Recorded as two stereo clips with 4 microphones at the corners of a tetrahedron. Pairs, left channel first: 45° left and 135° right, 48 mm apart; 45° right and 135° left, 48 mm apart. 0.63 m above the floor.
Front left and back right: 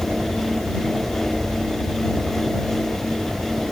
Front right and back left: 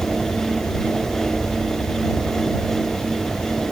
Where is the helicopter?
100° right; by 3.7 s 90° right.